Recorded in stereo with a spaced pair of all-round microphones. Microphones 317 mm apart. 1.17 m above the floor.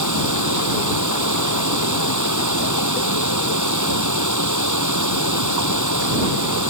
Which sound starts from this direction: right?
Running water, at 0.0 s.